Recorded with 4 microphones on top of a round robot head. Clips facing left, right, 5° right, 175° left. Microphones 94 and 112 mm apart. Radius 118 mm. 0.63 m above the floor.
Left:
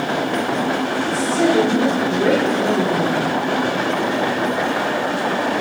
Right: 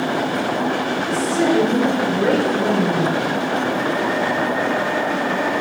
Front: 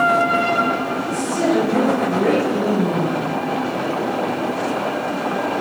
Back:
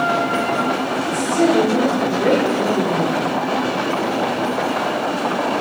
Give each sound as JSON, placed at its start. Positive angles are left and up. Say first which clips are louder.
{"t": 1.0, "sound": "a woman speaking", "louder": "left 1 dB, back 4 dB", "azimuth_deg": -65, "distance_m": 6.0}